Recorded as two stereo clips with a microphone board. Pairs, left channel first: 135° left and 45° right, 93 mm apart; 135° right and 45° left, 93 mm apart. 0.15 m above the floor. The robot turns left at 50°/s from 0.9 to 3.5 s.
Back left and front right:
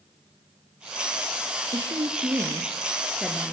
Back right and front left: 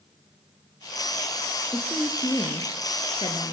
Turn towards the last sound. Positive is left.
turn(degrees=-145)